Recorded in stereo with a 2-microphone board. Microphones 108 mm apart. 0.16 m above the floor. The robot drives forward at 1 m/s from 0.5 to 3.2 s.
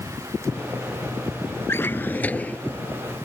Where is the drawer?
25° left (ahead or behind); by 2.6 s 15° left (ahead or behind).